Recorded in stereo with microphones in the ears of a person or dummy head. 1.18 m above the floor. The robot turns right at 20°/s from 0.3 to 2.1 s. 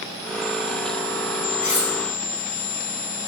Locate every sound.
1.6 s cutlery clinking: 35° left (ahead or behind), 0.7 m; by 1.9 s 30° left (ahead or behind), 0.7 m